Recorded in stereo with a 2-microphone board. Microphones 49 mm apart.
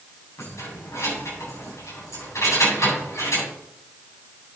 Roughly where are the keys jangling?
Left.